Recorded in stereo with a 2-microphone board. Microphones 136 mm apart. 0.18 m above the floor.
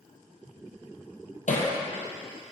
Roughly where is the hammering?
Left.